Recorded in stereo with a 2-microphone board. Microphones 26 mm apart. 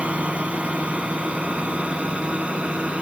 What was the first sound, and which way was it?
A drone, 50° right (ahead or behind).